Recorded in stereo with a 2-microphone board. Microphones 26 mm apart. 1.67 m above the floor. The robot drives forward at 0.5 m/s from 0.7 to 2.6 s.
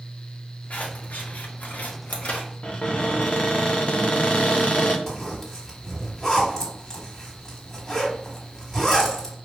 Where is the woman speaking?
No woman speaking in this recording.